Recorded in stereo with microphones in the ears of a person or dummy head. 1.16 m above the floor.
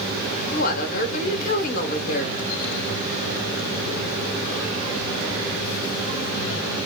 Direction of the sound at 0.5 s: 45° left (ahead or behind).